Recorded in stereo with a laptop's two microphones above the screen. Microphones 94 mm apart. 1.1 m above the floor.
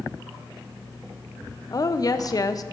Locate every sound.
1.7 s a woman speaking: 40° left (ahead or behind), 0.7 m